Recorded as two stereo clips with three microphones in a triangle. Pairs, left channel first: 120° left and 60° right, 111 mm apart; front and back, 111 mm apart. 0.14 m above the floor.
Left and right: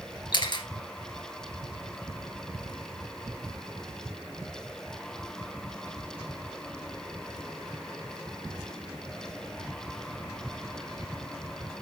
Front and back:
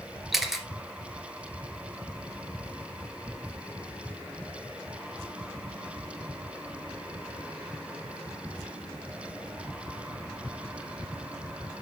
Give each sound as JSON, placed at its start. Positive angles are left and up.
{"t": 0.3, "sound": "a camera shutter", "azimuth_deg": 95, "distance_m": 2.0}